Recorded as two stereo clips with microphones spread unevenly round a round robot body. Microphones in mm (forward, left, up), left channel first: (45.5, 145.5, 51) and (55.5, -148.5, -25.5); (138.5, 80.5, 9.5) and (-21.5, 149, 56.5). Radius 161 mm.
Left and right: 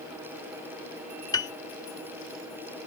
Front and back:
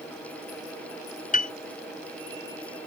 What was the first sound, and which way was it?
A piano, 10° left.